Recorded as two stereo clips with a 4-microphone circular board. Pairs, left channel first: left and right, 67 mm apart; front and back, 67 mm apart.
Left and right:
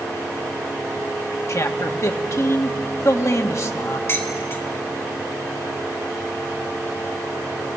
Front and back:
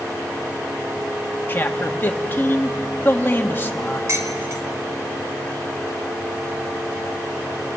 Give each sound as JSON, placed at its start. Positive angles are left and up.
{"t": 1.5, "sound": "a man speaking", "azimuth_deg": 55, "distance_m": 1.5}
{"t": 4.1, "sound": "dishes clattering", "azimuth_deg": 140, "distance_m": 2.5}